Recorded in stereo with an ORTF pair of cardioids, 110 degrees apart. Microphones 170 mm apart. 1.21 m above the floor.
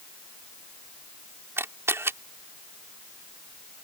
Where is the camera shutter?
15° right.